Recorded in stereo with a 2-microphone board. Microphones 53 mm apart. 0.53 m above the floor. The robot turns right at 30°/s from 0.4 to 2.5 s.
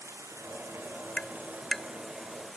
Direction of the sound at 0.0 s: 65° right.